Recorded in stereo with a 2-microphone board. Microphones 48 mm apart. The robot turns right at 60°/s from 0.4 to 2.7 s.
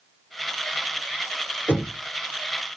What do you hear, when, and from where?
1.7 s knocking: 45° left (ahead or behind), 2.5 m; by 2.0 s 30° left (ahead or behind), 2.5 m